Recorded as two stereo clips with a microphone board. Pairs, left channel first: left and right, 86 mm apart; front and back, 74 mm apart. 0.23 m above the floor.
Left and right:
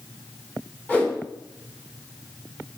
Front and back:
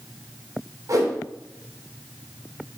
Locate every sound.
0.9 s a whoosh: 160° left, 1.5 m